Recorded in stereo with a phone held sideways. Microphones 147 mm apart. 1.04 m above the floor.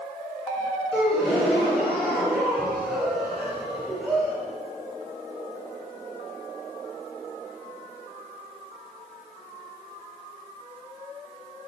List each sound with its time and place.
0.9 s a gasp: centre (ahead or behind), 3 m